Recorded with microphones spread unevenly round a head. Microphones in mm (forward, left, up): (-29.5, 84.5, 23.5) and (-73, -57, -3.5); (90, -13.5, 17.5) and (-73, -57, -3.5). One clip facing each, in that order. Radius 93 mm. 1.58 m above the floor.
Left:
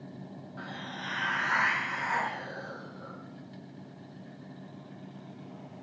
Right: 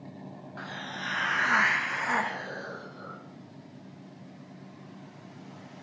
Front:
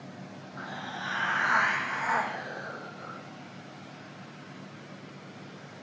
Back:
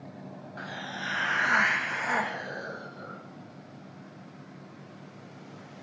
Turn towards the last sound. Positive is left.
turn(degrees=-105)